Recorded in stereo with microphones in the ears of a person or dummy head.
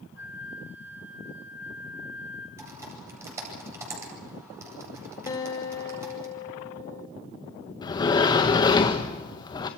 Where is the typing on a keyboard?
20° right (ahead or behind), 9 m.